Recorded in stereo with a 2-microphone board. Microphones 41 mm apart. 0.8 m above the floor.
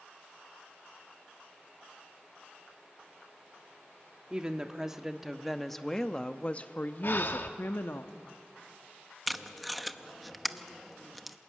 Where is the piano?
I don't hear a piano.